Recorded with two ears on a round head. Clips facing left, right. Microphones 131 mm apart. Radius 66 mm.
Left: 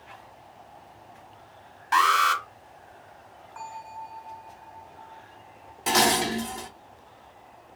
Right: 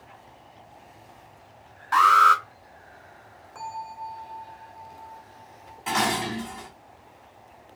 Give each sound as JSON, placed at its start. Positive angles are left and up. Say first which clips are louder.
{"t": 1.9, "sound": "an alarm", "louder": "right 4 dB", "side_deg": 25, "distance_m": 1.2}
{"t": 3.5, "sound": "a bell", "louder": "right 3 dB", "side_deg": -75, "distance_m": 1.8}
{"t": 5.9, "sound": "dishes clattering", "louder": "left 3 dB", "side_deg": 45, "distance_m": 0.6}